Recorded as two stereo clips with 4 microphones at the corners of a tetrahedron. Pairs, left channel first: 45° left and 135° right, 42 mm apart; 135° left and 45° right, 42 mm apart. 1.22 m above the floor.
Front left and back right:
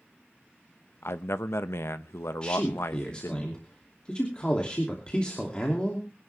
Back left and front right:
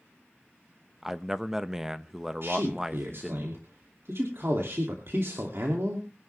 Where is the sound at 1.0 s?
35° left, 0.9 m.